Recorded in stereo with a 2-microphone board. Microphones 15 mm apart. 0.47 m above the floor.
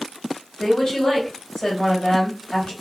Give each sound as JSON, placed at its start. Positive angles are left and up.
{"t": 0.6, "sound": "a woman speaking", "side_deg": 65, "distance_m": 3.0}